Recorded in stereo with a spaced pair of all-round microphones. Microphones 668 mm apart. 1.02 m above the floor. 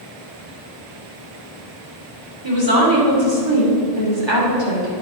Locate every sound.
2.4 s a woman speaking: 40° right (ahead or behind), 3 m